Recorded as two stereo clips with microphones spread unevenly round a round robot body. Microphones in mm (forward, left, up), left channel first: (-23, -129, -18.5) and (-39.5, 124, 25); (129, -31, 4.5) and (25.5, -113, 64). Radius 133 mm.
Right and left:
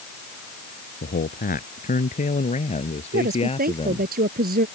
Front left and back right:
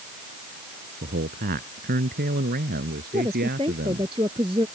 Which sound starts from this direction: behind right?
A man speaking, at 1.0 s.